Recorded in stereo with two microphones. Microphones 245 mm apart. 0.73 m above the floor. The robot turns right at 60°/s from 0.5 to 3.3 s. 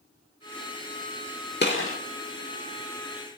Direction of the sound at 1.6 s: 40° left (ahead or behind).